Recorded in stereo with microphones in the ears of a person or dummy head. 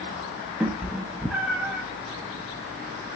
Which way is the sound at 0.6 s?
5° right (ahead or behind).